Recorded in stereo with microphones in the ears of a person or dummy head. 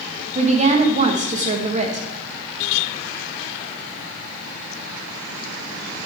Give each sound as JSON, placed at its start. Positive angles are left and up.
{"t": 0.3, "sound": "a woman speaking", "side_deg": -30, "distance_m": 1.4}